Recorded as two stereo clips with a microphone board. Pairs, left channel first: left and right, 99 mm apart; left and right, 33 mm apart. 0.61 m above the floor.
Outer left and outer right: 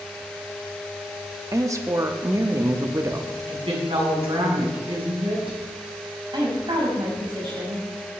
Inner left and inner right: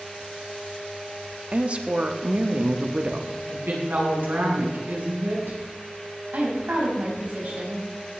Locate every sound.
1.5 s a woman speaking: 35° right (ahead or behind), 1.0 m
3.5 s a woman speaking: 80° right, 6 m
6.3 s a woman speaking: 55° right (ahead or behind), 3.5 m